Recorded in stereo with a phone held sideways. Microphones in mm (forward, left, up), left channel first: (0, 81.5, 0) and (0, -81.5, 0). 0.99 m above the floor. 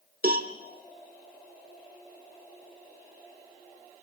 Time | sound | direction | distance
0.2 | a cowbell | 65° right (ahead or behind) | 1.5 m